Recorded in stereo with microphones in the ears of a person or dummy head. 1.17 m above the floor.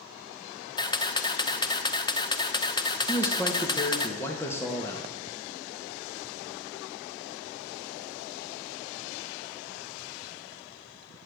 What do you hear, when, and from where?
0.8 s a camera shutter: 20° left (ahead or behind), 0.9 m
3.1 s a man speaking: 10° left (ahead or behind), 1.5 m